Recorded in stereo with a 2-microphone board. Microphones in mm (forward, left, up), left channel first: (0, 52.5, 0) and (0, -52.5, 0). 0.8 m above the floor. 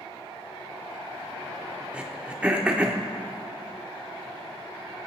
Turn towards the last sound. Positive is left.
turn(degrees=-10)  # may be behind; listen again after turning